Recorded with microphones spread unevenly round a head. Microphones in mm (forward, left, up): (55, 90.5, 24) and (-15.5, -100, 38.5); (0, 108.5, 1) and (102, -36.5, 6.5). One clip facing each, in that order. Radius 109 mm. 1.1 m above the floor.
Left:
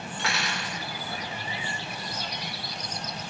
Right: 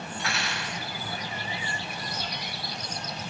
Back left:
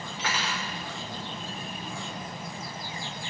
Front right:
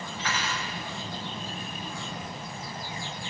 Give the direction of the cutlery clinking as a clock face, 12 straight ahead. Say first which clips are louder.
Left 3 dB, back left 1 dB; 9 o'clock.